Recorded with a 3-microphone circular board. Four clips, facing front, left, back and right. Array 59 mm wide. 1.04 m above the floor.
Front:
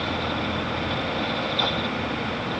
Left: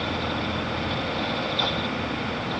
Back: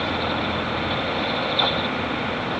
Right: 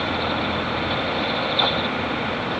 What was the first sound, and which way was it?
Only background noise.